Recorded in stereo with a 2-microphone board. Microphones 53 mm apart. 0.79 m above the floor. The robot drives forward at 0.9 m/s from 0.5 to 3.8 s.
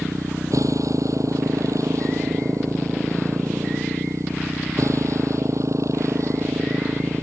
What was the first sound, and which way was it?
A motorcycle, 85° right.